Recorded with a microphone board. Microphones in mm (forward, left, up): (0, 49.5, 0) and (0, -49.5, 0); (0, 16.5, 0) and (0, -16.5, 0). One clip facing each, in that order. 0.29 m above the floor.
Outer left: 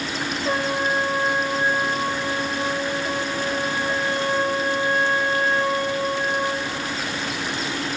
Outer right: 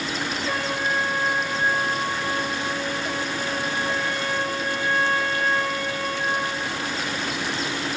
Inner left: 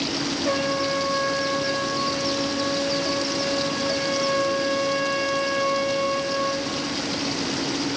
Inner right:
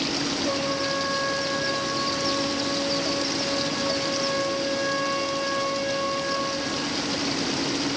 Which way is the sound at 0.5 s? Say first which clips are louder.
Outer left 5 dB, inner left 5 dB; 25° left (ahead or behind).